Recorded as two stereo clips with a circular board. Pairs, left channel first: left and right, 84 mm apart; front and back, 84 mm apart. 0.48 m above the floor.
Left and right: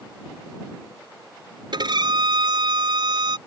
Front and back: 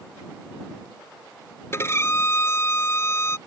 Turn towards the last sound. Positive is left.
turn(degrees=-60)